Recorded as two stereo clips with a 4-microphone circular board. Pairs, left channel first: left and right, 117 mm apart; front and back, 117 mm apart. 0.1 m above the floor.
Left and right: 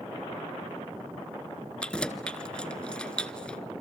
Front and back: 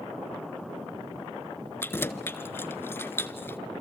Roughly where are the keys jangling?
Ahead left.